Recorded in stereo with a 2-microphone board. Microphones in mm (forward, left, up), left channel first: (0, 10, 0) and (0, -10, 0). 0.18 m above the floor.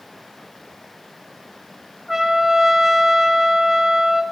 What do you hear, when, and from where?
2.1 s a trumpet: 20° right (ahead or behind), 1.3 m